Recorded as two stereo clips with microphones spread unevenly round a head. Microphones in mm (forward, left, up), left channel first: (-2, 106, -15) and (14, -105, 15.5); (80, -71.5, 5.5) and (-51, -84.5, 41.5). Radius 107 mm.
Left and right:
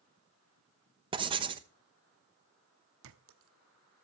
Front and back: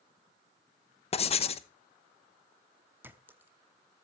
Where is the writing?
15° right, 0.9 m.